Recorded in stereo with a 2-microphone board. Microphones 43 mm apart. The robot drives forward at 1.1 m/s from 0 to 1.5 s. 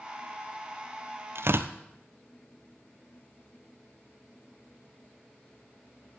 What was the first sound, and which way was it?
Tearing paper, 70° right (ahead or behind).